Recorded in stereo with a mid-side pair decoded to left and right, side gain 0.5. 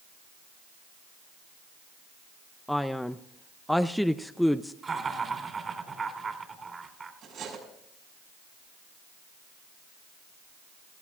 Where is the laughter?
30° right, 3.5 m.